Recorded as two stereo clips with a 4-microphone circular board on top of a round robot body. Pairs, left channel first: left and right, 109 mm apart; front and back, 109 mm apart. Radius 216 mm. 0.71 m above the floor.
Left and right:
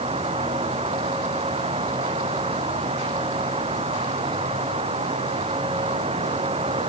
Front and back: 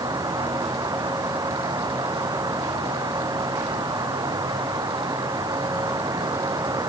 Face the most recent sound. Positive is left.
turn(degrees=-120)